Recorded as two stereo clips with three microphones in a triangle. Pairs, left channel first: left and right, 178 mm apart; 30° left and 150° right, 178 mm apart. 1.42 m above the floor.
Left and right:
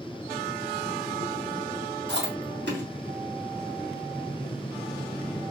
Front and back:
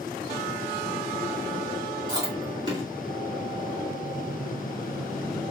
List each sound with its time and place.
2.1 s chewing: 85° right, 2 m